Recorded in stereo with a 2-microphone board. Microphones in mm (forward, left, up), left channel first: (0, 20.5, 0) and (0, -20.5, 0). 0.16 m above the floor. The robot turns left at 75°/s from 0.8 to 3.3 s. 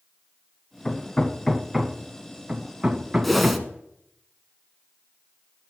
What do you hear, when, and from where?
0.8 s hammering: 15° left (ahead or behind), 0.6 m; by 3.7 s 15° right (ahead or behind), 0.6 m
3.2 s a whoosh: 5° left (ahead or behind), 0.8 m; by 3.6 s centre (ahead or behind), 0.8 m